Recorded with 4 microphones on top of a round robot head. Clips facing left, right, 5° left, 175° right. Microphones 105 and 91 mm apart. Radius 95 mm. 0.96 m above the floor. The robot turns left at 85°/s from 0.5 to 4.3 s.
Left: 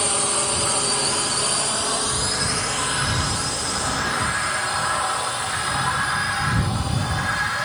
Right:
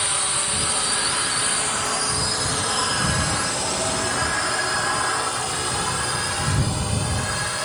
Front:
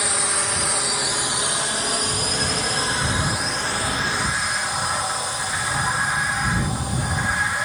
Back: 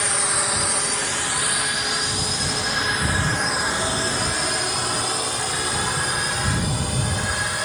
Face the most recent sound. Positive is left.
turn(degrees=-140)